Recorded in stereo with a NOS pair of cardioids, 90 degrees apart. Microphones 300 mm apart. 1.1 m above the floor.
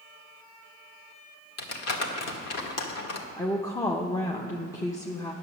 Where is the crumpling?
60° left, 1.5 m.